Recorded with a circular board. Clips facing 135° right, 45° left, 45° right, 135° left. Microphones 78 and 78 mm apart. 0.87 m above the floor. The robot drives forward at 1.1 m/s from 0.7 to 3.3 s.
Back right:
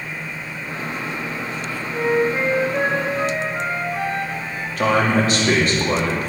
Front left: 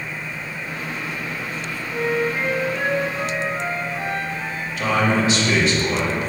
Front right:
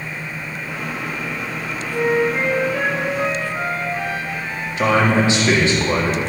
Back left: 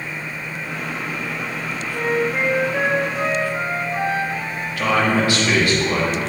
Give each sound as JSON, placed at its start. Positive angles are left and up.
{"t": 1.9, "sound": "a flute", "azimuth_deg": -45, "distance_m": 0.7}
{"t": 4.8, "sound": "a man speaking", "azimuth_deg": -110, "distance_m": 1.9}